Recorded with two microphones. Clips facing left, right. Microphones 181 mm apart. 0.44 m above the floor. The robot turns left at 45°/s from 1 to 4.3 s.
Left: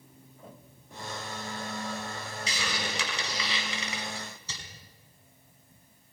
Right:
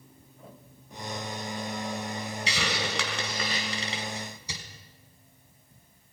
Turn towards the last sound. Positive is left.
turn(degrees=-15)  # may be behind; listen again after turning